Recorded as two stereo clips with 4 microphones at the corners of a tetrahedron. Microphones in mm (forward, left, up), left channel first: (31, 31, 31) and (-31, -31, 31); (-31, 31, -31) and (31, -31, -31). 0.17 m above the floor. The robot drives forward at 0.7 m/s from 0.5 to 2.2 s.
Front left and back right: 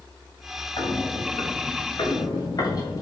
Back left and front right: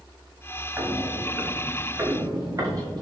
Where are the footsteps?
20° left, 5.5 m; by 3.0 s 5° right, 4 m.